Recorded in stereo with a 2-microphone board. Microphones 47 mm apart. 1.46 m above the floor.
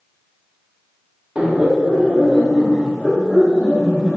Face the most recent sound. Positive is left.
turn(degrees=-10)  # may be behind; listen again after turning